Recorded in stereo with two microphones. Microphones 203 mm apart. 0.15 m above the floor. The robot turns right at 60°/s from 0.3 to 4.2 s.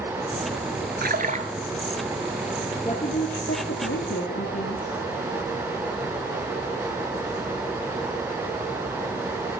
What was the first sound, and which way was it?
A splash, 50° right (ahead or behind).